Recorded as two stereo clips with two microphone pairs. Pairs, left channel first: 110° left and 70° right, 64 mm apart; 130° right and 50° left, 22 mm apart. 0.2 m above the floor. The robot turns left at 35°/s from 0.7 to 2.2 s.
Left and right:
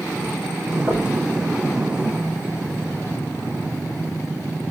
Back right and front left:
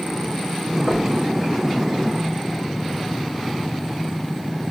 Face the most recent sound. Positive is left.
turn(degrees=-20)